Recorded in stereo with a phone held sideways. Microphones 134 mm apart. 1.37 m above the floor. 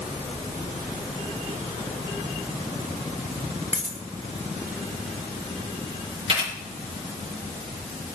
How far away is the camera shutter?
About 6 m.